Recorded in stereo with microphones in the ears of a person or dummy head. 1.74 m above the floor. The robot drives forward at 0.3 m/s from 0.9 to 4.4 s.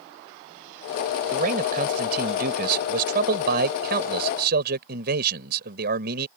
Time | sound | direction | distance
1.3 | a man speaking | 50° right (ahead or behind) | ?